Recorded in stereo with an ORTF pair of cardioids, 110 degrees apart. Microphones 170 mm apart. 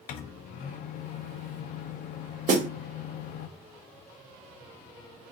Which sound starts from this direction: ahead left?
A microwave, at 0.1 s.